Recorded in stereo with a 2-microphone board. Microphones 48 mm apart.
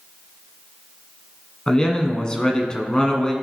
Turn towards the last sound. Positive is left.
turn(degrees=20)  # may be behind; listen again after turning